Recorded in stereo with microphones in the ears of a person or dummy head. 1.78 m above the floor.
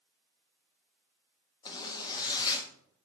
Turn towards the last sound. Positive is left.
turn(degrees=25)  # may be behind; listen again after turning